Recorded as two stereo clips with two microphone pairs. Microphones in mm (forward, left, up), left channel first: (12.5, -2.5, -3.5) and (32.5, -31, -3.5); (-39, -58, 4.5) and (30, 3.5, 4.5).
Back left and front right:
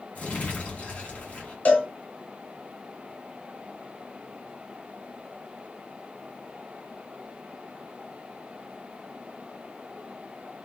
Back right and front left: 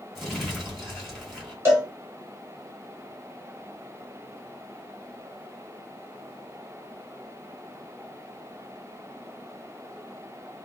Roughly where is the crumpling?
Behind left.